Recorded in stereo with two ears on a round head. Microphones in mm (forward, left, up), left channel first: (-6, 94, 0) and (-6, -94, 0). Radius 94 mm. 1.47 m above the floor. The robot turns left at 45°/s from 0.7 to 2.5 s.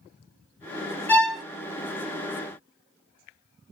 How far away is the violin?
About 0.6 m.